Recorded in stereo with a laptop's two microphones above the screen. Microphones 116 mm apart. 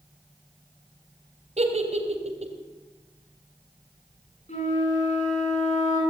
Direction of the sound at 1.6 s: 65° right (ahead or behind).